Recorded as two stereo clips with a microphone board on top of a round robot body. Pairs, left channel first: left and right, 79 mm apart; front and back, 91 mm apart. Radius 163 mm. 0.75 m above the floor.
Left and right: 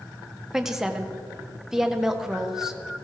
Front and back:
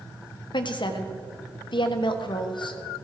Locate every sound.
0.5 s a woman speaking: 5° right, 1.5 m